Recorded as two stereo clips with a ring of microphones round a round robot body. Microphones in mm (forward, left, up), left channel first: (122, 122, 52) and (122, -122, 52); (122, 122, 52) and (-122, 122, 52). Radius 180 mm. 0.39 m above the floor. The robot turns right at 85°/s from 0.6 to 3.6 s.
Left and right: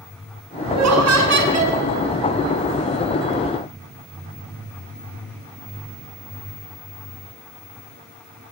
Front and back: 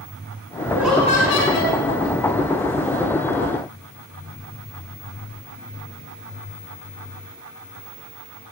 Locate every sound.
0.7 s laughter: 105° right, 5 m; by 1.8 s 15° right, 5 m